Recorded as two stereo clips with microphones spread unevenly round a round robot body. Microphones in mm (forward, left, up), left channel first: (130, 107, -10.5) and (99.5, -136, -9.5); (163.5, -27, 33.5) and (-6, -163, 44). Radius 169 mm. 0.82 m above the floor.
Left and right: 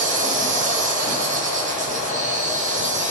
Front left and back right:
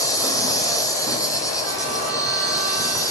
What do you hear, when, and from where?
0.0 s an insect: 35° right, 2 m